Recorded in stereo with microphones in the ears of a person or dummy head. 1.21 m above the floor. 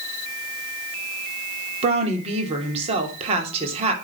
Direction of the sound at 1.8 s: 30° right (ahead or behind).